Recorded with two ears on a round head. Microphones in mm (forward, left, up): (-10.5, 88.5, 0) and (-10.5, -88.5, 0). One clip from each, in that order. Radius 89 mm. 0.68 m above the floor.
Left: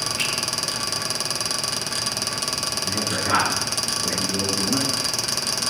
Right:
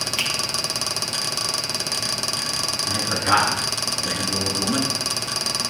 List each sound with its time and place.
0.2 s a finger snap: 70° right (ahead or behind), 5 m
2.9 s a man speaking: 85° right, 8 m